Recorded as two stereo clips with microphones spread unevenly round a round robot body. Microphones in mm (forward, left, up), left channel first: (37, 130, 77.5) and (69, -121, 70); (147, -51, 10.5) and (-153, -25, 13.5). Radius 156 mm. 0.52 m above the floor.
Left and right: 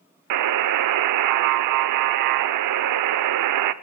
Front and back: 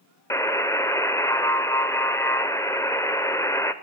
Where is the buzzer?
85° right, 0.5 m.